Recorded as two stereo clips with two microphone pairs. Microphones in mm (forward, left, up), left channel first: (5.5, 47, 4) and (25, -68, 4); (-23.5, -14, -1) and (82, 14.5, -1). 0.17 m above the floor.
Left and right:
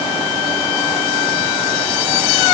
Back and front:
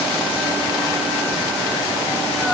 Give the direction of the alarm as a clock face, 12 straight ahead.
I don't hear an alarm.